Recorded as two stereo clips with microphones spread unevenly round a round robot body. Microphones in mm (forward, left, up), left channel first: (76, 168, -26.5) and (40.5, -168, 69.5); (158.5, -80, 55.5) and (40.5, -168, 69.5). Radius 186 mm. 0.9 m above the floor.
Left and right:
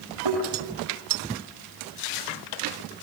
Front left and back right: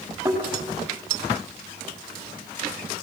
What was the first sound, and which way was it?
A thud, 75° right.